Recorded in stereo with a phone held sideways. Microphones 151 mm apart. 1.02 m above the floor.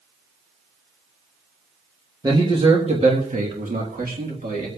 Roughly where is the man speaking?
Right.